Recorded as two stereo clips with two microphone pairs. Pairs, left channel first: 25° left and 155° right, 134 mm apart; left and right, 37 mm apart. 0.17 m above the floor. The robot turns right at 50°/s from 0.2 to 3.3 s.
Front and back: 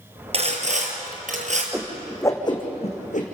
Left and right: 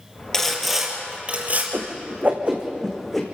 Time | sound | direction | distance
0.3 | sawing | 165° left | 3.5 m
1.7 | a whoosh | 70° right | 3 m